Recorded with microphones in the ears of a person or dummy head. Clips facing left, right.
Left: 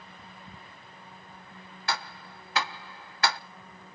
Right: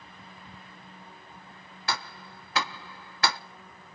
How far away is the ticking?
About 0.5 m.